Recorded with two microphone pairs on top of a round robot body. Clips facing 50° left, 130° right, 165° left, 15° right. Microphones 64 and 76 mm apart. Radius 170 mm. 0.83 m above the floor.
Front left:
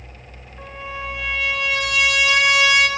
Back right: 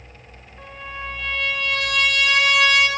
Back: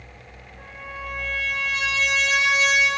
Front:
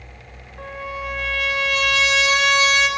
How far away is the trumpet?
About 1.2 m.